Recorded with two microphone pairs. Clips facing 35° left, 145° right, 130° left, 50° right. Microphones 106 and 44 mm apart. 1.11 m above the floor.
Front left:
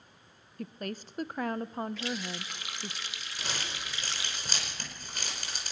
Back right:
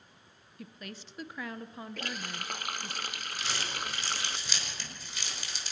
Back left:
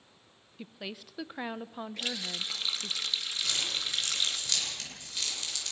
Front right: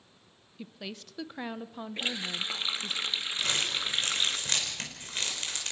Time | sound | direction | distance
0.6 | a woman speaking | 55° left | 0.6 m
2.0 | a running tap | 110° right | 0.8 m
3.4 | crumpling | 5° right | 5 m